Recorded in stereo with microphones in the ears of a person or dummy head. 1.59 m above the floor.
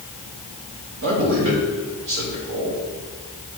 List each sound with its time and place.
1.0 s a man speaking: 65° right (ahead or behind), 5 m